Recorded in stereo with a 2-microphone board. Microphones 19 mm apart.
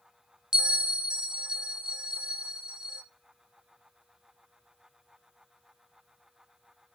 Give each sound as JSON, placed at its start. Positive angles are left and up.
{"t": 0.5, "sound": "a bell", "side_deg": -30, "distance_m": 0.6}